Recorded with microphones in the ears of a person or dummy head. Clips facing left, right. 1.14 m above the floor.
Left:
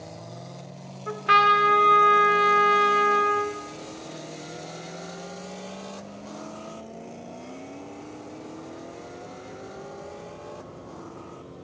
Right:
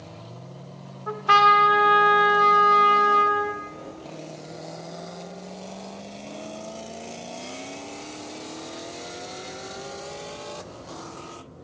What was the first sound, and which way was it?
A trumpet, 25° left (ahead or behind).